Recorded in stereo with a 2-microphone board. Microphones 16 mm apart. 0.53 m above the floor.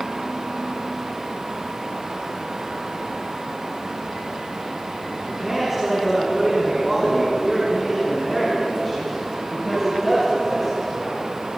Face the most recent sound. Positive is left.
turn(degrees=20)  # may be behind; listen again after turning